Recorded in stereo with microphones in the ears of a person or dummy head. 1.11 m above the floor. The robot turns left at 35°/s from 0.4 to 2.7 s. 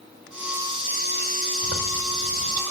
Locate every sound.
1.6 s a zipper: 55° right, 3 m; by 2.6 s 90° right, 3 m